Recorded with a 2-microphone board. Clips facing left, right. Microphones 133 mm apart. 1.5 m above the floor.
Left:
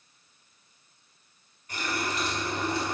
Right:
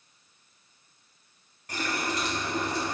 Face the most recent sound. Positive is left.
turn(degrees=-75)  # may be behind; listen again after turning